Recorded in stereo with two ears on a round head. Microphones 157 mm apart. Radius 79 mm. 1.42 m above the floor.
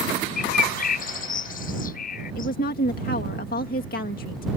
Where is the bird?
55° left (ahead or behind).